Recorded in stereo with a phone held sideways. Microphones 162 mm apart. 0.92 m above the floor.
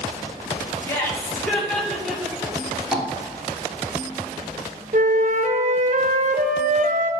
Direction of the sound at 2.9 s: 5° right (ahead or behind).